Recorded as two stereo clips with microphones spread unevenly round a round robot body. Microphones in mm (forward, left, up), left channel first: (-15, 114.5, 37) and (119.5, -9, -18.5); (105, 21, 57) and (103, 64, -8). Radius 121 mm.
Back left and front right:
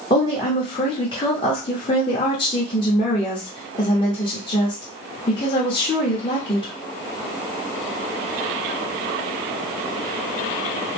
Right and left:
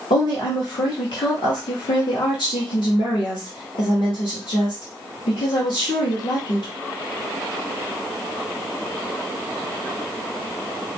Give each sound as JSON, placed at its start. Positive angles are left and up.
{"t": 0.1, "sound": "a woman speaking", "azimuth_deg": -145, "distance_m": 0.9}